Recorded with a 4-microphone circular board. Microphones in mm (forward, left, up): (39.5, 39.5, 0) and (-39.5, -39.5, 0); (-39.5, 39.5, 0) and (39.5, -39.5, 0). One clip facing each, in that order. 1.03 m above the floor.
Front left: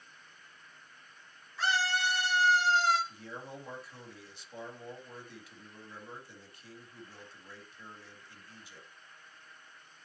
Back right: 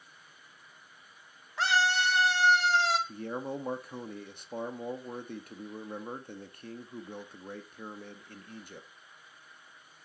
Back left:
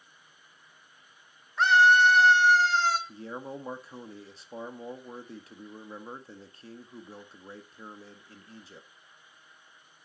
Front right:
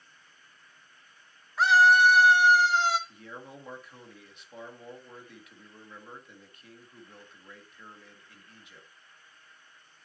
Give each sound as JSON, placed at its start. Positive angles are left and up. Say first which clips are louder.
{"t": 1.6, "sound": "a scream", "louder": "back right 4 dB, even", "azimuth_deg": -130, "distance_m": 3.0}
{"t": 3.1, "sound": "a man speaking", "louder": "back right 9 dB, back left 6 dB", "azimuth_deg": -170, "distance_m": 1.7}